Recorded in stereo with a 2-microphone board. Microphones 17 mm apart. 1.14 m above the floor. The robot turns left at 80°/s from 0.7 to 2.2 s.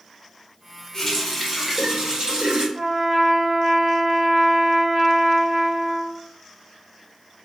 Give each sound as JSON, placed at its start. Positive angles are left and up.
{"t": 0.9, "sound": "a running tap", "azimuth_deg": 30, "distance_m": 1.0}
{"t": 2.8, "sound": "a trumpet", "side_deg": -30, "distance_m": 1.2}